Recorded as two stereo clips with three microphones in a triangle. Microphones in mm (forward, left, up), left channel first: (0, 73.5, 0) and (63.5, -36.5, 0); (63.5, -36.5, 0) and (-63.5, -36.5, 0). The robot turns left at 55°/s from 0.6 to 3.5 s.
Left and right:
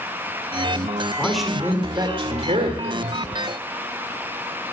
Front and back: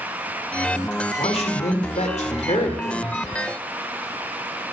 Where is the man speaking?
40° left, 2 m; by 3.2 s 70° right, 2 m.